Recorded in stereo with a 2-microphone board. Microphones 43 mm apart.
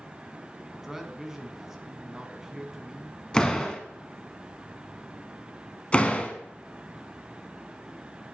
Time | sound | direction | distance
0.7 | a man speaking | 10° right (ahead or behind) | 1.2 m
3.3 | a door slam | 15° left (ahead or behind) | 0.9 m
5.9 | a door slam | 25° left (ahead or behind) | 1.0 m